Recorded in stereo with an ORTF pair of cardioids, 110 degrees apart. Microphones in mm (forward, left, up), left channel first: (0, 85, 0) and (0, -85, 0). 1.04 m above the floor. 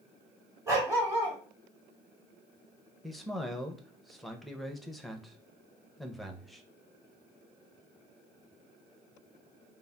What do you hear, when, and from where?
0.7 s a dog barking: 15° right, 1.3 m
3.0 s a man speaking: straight ahead, 0.6 m